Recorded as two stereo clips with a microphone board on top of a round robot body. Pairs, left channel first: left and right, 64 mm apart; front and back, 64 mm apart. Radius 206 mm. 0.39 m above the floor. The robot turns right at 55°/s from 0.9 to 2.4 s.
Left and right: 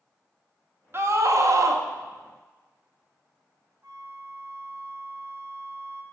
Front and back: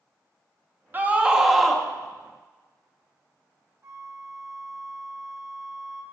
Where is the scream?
125° right, 1.2 m; by 1.9 s 75° right, 1.2 m.